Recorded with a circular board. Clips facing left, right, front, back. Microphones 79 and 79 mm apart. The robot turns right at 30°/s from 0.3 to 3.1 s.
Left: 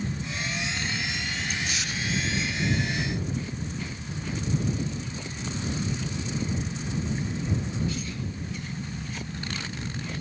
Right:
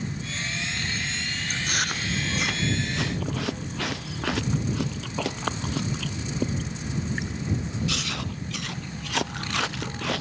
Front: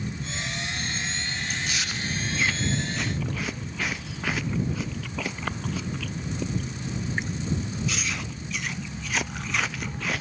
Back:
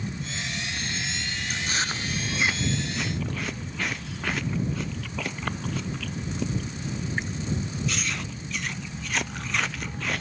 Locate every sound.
1.5 s chewing: 135° right; by 10.2 s 85° right